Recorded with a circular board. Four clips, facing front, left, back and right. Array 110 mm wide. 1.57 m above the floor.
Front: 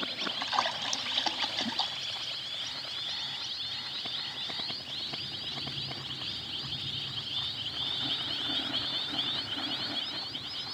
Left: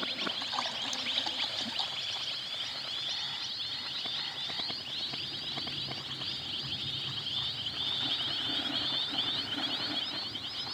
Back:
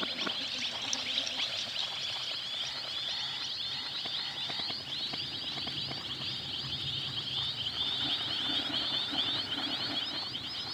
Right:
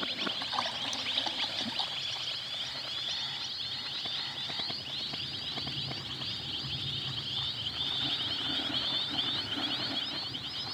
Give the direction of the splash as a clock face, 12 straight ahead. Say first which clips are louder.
Right 2 dB, front 10 dB; 12 o'clock.